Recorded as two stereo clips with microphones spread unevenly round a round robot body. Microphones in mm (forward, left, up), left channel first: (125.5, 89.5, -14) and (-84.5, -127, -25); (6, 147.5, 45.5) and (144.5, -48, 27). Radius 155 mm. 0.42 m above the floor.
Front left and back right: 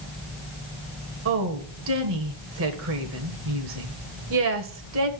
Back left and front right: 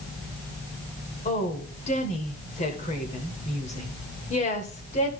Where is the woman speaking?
170° right, 1.5 m.